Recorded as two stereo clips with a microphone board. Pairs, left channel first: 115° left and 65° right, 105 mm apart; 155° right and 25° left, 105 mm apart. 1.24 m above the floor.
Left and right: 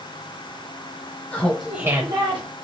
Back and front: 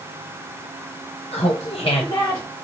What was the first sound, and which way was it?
Laughter, straight behind.